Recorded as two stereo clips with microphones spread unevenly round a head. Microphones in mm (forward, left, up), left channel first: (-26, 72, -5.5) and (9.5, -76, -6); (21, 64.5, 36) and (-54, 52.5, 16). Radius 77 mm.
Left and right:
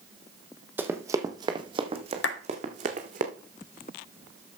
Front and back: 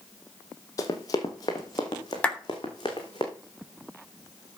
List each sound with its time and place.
0.8 s running footsteps: 5° right, 1.7 m; by 3.2 s 40° right, 3 m
2.2 s a clap: 85° left, 3 m